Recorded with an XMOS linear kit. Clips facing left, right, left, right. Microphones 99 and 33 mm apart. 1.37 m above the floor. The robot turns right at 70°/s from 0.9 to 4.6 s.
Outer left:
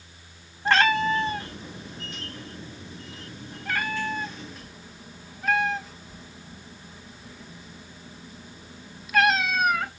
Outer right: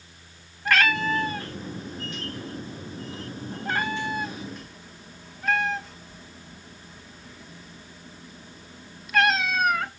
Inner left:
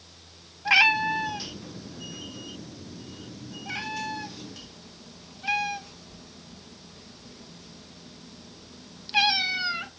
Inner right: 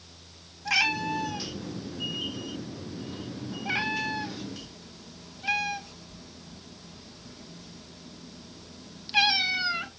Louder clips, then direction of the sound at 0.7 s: Outer left 2 dB, inner left 6 dB; 30° left (ahead or behind).